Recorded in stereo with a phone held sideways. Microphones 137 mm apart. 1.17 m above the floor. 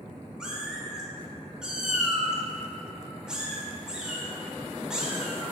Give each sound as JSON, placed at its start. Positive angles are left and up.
{"t": 0.4, "sound": "a cat meowing", "side_deg": -5, "distance_m": 1.0}